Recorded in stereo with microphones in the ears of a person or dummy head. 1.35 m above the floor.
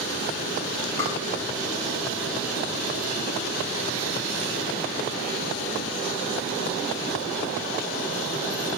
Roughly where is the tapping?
Centre.